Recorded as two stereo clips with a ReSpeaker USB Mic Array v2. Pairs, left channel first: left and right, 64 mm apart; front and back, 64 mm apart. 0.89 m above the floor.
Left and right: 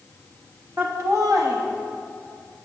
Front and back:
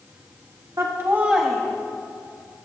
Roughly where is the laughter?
Behind right.